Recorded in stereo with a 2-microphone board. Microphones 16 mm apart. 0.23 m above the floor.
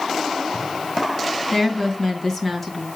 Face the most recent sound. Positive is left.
turn(degrees=15)  # may be behind; listen again after turning